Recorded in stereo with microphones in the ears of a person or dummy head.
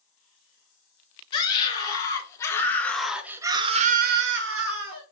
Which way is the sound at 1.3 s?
25° left (ahead or behind).